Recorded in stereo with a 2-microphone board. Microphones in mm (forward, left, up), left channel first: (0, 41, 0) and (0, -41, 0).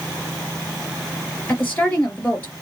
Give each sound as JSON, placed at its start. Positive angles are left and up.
{"t": 1.5, "sound": "a woman speaking", "side_deg": 25, "distance_m": 3.0}